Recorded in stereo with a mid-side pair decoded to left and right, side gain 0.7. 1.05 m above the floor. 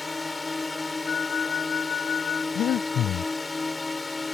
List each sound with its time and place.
0.0 s a drone: 10° left
1.1 s a flute: 35° left
2.5 s breathing: 45° left